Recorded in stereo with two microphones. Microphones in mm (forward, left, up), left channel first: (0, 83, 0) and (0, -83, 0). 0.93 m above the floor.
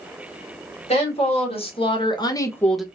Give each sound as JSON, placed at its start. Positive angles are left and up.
{"t": 0.9, "sound": "a woman speaking", "side_deg": 40, "distance_m": 1.7}